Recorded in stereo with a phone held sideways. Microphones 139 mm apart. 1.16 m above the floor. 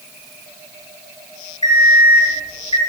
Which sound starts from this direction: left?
An alarm clock, at 1.6 s.